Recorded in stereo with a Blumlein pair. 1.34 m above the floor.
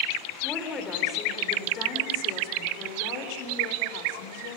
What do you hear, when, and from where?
0.4 s a woman speaking: 20° left, 3.5 m; by 4.6 s 55° left, 3.5 m